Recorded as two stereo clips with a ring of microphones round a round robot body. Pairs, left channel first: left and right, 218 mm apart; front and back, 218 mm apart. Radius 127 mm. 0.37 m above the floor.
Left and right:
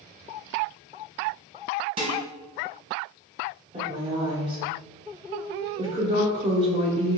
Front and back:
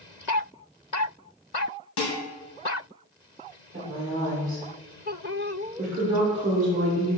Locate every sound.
2.0 s dishes clattering: 25° right, 1.9 m
3.7 s a woman speaking: 145° right, 1.0 m